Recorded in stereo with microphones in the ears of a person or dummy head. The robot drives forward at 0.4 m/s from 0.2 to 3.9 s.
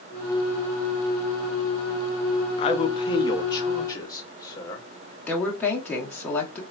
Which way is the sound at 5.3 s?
10° left (ahead or behind).